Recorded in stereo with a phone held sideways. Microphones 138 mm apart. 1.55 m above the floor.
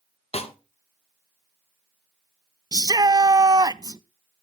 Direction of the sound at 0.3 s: 45° left (ahead or behind).